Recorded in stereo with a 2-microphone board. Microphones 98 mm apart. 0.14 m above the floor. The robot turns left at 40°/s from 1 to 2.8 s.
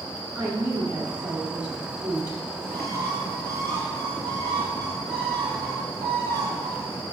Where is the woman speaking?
15° right (ahead or behind), 1.1 m; by 2.4 s 30° right (ahead or behind), 1.1 m.